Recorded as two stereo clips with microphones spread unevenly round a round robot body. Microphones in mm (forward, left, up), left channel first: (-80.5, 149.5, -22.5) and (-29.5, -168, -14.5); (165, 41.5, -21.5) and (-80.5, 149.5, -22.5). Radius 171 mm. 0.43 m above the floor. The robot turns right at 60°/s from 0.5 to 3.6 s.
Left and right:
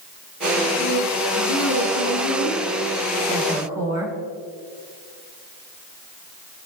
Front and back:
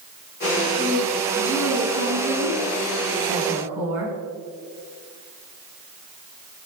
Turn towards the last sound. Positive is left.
turn(degrees=-160)